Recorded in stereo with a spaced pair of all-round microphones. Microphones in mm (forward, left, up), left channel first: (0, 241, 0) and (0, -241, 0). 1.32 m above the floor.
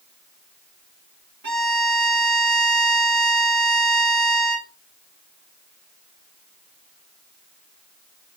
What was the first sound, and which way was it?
A violin, 50° right (ahead or behind).